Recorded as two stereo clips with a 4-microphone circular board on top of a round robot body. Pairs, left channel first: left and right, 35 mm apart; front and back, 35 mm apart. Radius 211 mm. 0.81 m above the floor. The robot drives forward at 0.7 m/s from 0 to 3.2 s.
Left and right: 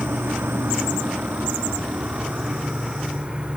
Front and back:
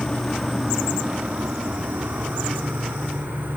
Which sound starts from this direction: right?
An insect, at 0.0 s.